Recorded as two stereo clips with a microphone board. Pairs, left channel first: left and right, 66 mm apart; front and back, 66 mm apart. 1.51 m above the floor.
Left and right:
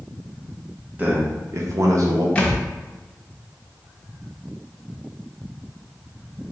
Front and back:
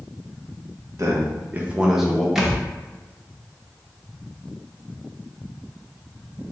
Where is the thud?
110° left, 0.8 m.